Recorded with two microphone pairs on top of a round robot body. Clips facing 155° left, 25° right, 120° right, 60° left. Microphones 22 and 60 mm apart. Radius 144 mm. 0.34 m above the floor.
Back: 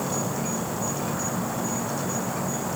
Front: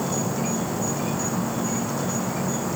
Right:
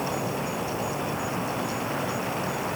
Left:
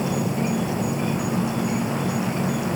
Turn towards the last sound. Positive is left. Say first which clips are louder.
# front 2 dB, left 4 dB
turn(degrees=40)